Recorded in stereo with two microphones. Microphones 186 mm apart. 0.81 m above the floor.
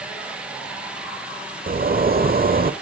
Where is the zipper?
50° right (ahead or behind), 1.0 m.